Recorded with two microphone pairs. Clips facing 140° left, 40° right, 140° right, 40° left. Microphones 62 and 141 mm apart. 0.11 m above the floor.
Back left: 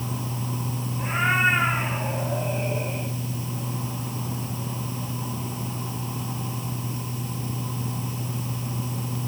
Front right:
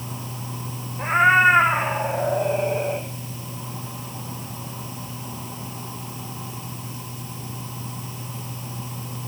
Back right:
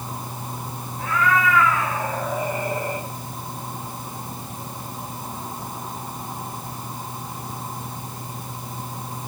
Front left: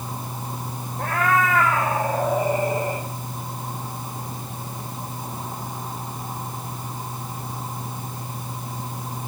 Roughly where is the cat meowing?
Ahead.